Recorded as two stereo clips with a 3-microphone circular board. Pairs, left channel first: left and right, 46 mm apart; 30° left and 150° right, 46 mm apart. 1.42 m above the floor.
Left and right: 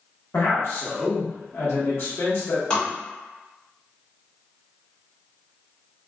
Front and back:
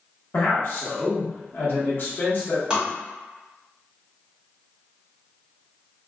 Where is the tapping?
145° left, 1.3 m.